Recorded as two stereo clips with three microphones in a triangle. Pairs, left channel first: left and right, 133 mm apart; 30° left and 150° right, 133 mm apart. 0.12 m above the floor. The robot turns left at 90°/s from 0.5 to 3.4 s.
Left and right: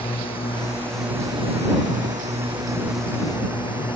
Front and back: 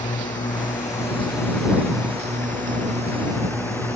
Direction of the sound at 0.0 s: 45° left.